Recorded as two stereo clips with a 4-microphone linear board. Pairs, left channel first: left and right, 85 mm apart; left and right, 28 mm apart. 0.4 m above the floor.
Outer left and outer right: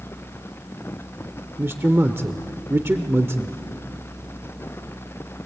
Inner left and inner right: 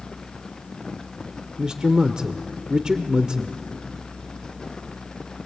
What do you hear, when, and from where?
1.6 s a man speaking: 30° right (ahead or behind), 0.8 m